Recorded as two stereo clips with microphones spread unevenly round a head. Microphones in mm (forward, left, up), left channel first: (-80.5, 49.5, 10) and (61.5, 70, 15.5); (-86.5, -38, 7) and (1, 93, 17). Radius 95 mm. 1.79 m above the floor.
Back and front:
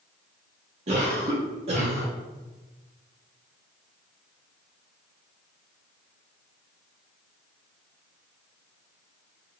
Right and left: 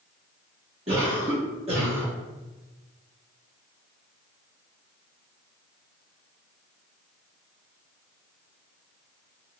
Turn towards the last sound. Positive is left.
turn(degrees=20)